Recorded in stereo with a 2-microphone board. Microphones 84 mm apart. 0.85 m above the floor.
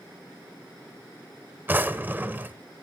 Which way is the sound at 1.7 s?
20° right (ahead or behind).